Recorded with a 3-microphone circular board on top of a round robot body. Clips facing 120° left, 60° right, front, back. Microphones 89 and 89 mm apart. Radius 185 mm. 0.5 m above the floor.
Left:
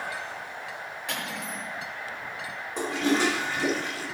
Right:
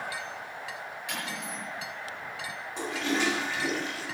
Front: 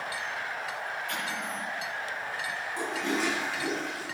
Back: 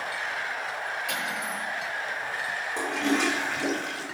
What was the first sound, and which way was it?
Cutlery clinking, 160° left.